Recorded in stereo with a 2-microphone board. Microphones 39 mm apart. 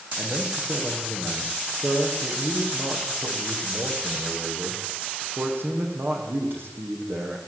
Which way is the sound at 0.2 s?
65° right (ahead or behind).